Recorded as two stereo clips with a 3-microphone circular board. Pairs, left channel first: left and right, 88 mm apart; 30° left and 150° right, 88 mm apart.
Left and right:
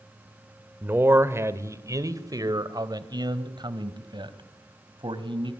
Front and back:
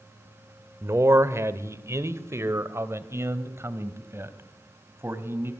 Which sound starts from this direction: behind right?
A man speaking, at 0.8 s.